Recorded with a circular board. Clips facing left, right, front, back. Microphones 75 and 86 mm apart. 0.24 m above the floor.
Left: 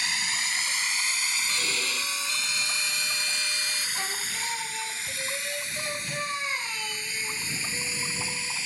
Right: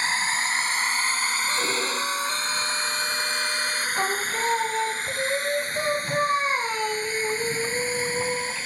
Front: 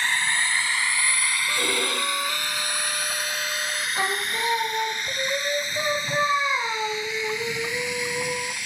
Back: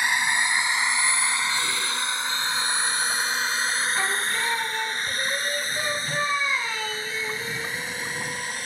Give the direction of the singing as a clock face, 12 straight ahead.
2 o'clock.